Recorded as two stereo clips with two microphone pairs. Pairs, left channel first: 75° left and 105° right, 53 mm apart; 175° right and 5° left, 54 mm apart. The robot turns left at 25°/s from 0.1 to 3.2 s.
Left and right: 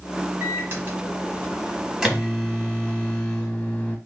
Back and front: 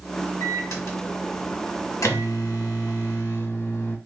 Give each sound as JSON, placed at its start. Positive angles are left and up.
{"t": 0.4, "sound": "a microwave", "azimuth_deg": -145, "distance_m": 0.8}